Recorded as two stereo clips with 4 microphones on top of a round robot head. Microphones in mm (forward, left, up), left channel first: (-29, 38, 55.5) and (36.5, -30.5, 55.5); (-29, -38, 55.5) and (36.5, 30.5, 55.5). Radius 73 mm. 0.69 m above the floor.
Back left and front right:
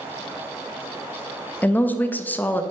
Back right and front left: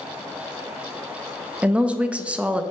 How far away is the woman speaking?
About 0.5 m.